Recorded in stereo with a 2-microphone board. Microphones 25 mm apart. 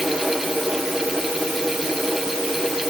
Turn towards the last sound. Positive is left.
No sound to turn to.